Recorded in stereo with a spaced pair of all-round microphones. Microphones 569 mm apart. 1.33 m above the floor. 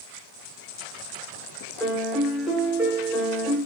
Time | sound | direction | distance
1.8 | a piano | centre (ahead or behind) | 3 m